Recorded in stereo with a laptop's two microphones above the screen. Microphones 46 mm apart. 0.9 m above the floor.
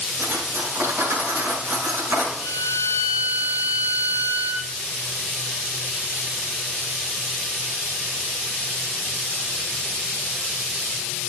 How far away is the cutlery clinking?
About 6 m.